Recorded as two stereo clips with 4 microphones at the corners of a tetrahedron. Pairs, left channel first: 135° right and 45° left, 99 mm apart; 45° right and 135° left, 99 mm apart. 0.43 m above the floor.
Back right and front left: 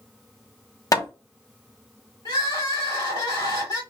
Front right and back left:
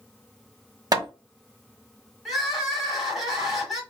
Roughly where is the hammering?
Behind.